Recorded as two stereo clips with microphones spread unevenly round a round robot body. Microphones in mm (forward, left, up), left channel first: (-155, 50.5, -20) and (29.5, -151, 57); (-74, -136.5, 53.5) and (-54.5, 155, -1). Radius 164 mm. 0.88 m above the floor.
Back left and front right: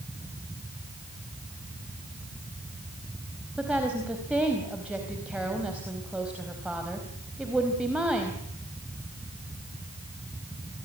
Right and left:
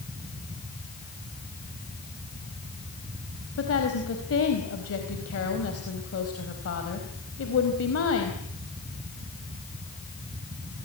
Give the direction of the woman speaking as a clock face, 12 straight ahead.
4 o'clock.